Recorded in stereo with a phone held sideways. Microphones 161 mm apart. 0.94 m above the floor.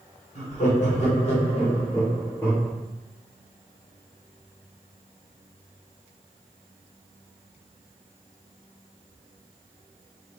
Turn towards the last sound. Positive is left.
turn(degrees=20)  # may be behind; listen again after turning